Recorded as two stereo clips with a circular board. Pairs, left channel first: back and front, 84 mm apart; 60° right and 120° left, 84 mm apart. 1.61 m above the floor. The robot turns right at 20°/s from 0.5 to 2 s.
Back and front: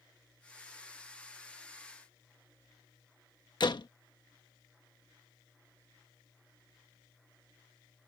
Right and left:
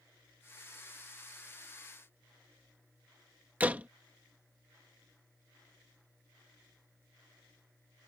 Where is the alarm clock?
I don't hear an alarm clock.